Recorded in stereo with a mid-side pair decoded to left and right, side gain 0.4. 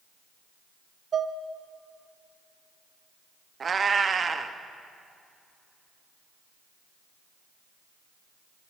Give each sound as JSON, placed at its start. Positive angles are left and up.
{"t": 1.1, "sound": "dishes clattering", "azimuth_deg": -50, "distance_m": 0.7}
{"t": 3.6, "sound": "a cat meowing", "azimuth_deg": -45, "distance_m": 0.6}